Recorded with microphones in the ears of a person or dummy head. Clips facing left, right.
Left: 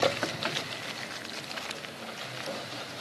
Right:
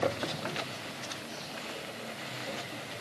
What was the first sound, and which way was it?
Only background noise.